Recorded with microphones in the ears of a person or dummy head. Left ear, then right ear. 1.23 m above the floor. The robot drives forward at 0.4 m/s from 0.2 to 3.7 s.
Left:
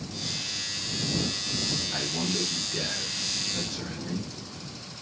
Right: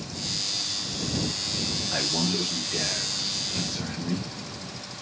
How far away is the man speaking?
About 0.5 m.